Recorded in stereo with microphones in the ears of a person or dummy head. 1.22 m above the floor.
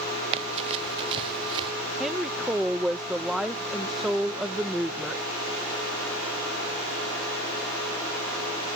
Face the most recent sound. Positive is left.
turn(degrees=-5)  # may be behind; listen again after turning